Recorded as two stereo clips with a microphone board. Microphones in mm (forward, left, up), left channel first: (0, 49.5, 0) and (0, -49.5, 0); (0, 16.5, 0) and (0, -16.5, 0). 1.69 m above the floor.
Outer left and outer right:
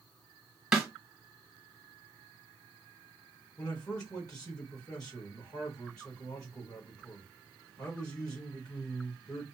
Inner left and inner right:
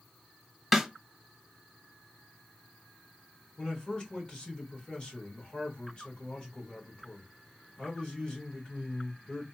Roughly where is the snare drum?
Centre.